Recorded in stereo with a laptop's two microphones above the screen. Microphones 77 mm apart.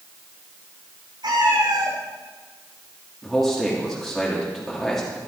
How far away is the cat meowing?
About 3 m.